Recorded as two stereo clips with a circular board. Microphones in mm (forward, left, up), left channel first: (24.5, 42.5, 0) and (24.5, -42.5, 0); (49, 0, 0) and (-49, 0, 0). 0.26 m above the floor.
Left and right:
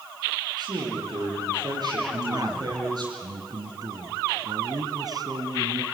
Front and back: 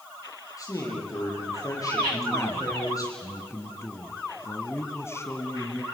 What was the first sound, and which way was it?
A man speaking, 55° right.